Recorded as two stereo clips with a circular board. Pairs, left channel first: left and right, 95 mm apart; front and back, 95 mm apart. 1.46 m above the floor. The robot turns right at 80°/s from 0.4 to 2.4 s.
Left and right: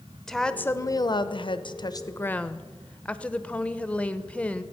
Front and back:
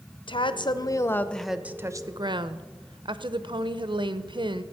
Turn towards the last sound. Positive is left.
turn(degrees=165)